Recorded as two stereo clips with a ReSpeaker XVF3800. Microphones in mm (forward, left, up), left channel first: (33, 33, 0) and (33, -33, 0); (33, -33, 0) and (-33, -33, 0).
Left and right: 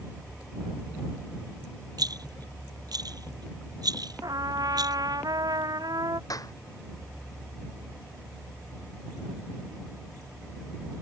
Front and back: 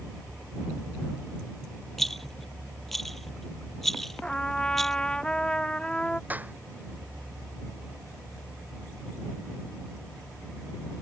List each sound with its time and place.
2.0 s a rattle: 90° right
4.2 s a trumpet: 80° right
6.3 s a clap: 115° left